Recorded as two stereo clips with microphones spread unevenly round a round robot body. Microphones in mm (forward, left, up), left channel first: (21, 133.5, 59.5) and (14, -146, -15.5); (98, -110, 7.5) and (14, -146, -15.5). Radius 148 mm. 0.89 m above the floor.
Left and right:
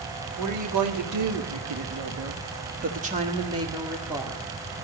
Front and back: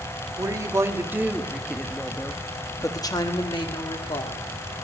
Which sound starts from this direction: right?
A woman speaking, at 0.4 s.